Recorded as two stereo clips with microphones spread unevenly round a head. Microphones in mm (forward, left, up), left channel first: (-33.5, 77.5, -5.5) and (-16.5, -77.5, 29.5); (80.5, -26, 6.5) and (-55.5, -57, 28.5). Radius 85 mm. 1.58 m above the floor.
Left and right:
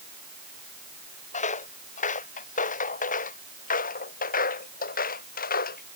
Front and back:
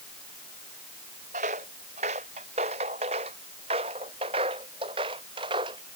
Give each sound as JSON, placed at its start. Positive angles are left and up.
{"t": 1.3, "sound": "footsteps", "azimuth_deg": 140}